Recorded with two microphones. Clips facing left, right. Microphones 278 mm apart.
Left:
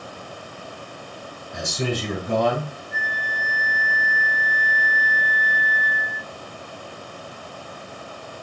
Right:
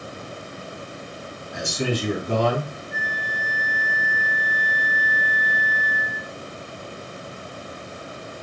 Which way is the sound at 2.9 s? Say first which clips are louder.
Right 1 dB; 45° left (ahead or behind).